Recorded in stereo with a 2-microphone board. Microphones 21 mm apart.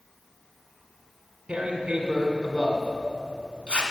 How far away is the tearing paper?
About 1.6 m.